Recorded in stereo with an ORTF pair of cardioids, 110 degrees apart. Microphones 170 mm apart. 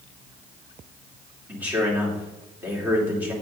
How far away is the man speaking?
About 3 m.